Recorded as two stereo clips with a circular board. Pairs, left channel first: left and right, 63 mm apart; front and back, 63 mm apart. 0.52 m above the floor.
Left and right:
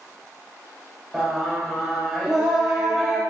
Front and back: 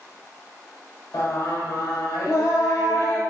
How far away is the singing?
About 0.6 m.